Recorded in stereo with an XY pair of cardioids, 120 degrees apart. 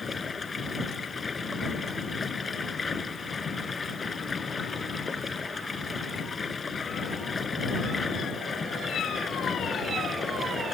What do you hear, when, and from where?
0.0 s running water: 20° left